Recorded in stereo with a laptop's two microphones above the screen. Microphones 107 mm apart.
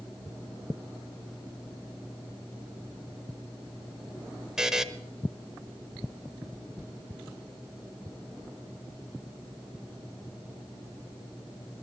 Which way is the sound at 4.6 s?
5° right (ahead or behind).